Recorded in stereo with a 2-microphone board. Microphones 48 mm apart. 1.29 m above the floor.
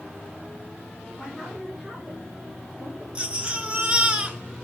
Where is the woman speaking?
10° left (ahead or behind), 4 m.